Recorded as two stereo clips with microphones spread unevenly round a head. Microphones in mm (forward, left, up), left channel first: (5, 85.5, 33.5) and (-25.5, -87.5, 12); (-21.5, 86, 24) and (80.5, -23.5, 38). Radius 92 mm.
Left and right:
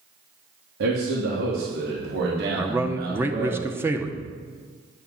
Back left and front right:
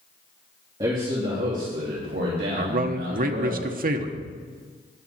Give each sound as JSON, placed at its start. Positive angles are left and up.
{"t": 0.8, "sound": "a man speaking", "azimuth_deg": -115, "distance_m": 2.5}
{"t": 2.6, "sound": "a man speaking", "azimuth_deg": -25, "distance_m": 1.2}